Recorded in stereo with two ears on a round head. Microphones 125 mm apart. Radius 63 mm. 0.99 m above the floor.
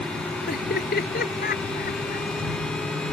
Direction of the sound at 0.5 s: 70° left (ahead or behind).